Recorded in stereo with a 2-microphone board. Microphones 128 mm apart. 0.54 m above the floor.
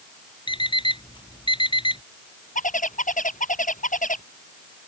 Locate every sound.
0.5 s an alarm clock: 40° left (ahead or behind)
2.5 s a bird: 90° left